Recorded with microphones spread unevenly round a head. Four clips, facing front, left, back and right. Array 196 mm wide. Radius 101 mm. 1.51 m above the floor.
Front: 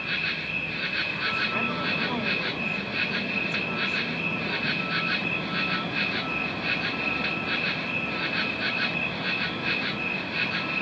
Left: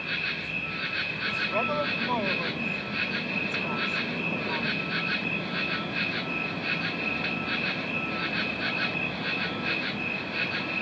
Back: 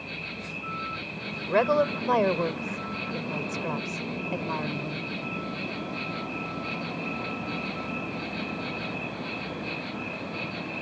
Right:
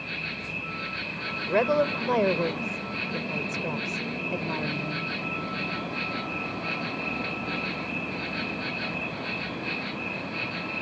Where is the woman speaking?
125° right.